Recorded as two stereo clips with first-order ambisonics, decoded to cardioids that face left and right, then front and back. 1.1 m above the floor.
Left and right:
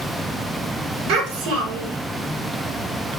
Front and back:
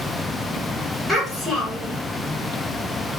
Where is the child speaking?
90° right, 1.9 m.